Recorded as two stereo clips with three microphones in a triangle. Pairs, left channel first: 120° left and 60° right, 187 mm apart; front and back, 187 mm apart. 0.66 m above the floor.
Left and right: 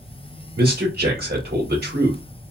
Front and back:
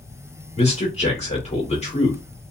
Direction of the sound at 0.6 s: 50° right.